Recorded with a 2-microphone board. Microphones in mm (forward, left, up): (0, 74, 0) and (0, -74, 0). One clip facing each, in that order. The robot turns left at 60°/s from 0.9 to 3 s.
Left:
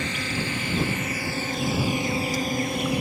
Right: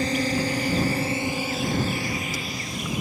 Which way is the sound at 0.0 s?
35° right (ahead or behind).